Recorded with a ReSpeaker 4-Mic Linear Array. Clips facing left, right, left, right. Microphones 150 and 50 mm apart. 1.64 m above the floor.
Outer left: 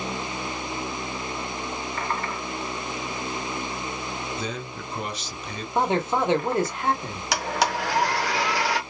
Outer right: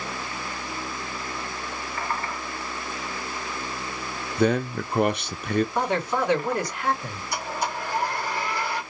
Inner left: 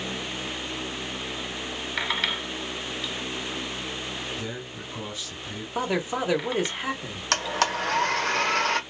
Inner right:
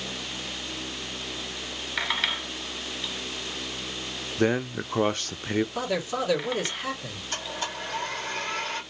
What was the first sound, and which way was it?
A man speaking, 60° right (ahead or behind).